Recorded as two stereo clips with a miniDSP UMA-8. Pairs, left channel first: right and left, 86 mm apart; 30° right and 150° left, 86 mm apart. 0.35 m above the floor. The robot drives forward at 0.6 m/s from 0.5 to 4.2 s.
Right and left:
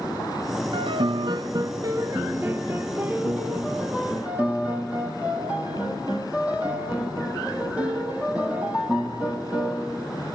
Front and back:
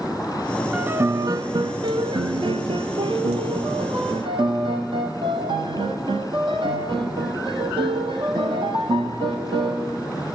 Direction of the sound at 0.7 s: 75° left.